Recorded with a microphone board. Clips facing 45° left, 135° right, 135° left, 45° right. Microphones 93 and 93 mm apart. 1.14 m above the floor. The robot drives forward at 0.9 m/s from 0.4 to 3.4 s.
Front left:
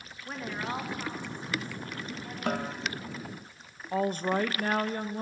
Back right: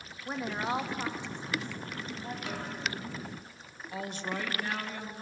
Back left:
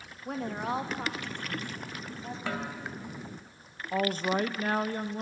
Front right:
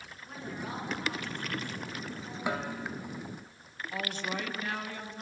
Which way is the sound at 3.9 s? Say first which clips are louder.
Front left 9 dB, back left 8 dB; 85° left.